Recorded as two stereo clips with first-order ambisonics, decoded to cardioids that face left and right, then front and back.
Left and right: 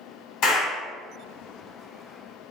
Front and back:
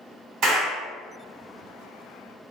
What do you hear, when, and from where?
0.4 s a clap: 130° left, 1.4 m